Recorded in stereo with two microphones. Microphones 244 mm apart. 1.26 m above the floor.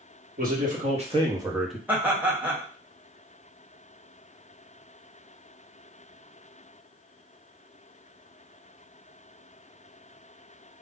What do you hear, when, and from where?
0.4 s a man speaking: 40° right (ahead or behind), 1.4 m; by 1.8 s 5° left (ahead or behind), 0.7 m
1.9 s laughter: 10° right (ahead or behind), 1.2 m